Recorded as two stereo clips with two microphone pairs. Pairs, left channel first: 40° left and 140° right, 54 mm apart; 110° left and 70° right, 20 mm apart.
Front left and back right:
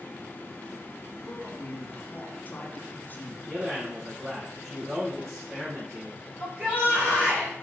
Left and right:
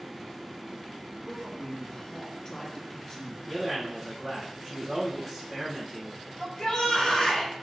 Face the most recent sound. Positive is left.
turn(degrees=160)